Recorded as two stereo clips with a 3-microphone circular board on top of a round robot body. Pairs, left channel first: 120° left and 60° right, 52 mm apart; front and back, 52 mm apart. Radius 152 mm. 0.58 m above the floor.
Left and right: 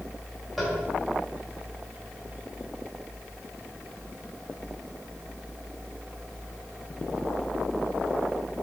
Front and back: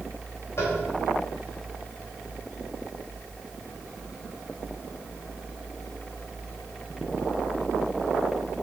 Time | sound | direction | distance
0.6 | tapping | 30° left | 3.5 m